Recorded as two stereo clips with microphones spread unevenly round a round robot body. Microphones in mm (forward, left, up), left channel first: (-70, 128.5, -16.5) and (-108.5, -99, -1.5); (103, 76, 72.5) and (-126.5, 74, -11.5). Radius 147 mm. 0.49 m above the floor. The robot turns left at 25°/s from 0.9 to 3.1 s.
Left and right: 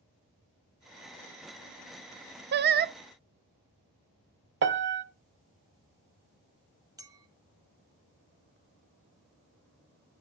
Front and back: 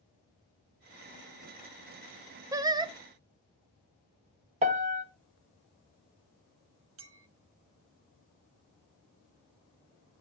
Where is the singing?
130° right, 0.5 m; by 2.9 s 140° right, 0.5 m.